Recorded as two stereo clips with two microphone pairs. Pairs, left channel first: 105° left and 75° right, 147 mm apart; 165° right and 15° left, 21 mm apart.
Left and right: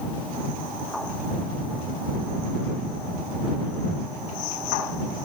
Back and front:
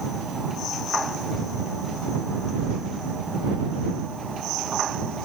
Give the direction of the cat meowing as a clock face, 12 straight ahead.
No cat meowing in this recording.